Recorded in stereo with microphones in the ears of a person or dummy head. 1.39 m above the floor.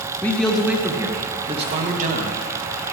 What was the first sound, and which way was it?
A man speaking, 15° left (ahead or behind).